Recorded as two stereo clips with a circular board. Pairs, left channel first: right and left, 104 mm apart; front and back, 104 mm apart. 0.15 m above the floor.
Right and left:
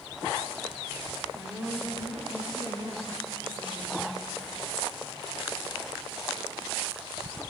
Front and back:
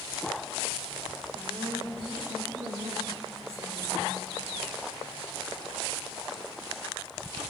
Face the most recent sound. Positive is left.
turn(degrees=155)